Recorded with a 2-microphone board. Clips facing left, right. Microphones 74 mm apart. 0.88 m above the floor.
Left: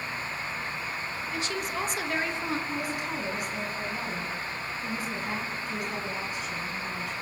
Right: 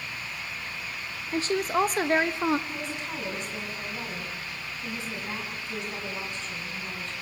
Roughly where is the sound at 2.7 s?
Centre.